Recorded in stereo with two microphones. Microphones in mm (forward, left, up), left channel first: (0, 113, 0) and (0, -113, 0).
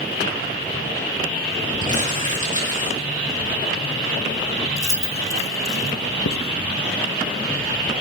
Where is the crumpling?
35° right (ahead or behind), 5.5 m.